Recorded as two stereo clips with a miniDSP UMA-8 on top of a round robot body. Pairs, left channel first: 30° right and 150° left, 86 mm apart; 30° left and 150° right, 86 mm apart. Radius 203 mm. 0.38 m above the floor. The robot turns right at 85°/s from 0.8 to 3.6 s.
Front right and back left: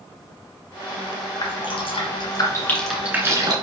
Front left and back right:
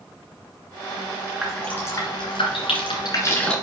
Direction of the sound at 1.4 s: 65° right.